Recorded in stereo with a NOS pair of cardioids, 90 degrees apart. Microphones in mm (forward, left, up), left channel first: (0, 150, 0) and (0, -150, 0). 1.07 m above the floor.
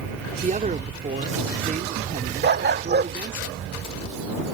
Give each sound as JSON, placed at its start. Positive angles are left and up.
{"t": 0.4, "sound": "a man speaking", "azimuth_deg": -25}
{"t": 2.4, "sound": "a dog barking", "azimuth_deg": -35}